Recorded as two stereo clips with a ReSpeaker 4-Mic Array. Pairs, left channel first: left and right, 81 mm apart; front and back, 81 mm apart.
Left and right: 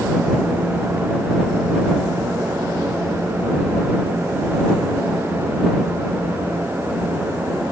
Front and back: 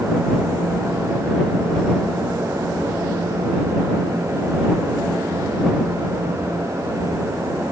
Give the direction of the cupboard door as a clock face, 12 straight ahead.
No cupboard door in this recording.